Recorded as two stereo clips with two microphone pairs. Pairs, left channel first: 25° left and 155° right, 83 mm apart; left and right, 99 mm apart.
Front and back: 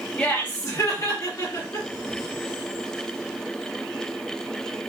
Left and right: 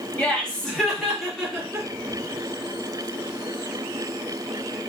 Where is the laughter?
60° left, 0.9 m; by 1.9 s 5° right, 2 m.